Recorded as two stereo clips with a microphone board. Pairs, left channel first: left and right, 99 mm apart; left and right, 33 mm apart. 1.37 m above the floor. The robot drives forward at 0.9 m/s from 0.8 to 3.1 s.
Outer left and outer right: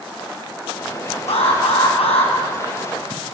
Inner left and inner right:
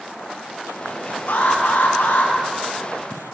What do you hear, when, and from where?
1.3 s an alarm: 85° left, 7.5 m